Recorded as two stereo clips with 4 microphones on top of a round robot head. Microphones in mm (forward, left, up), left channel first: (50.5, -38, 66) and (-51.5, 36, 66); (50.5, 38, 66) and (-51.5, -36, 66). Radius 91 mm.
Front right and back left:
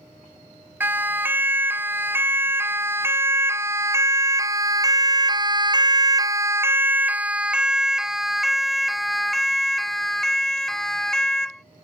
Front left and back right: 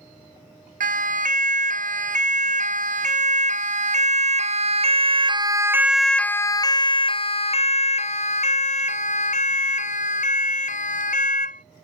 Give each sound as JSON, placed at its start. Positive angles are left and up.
{"t": 0.8, "sound": "a siren", "azimuth_deg": -140}